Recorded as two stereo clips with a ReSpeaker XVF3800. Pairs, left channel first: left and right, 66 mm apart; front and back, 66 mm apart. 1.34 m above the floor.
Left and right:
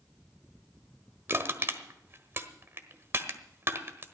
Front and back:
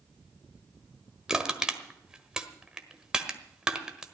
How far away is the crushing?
About 1.3 m.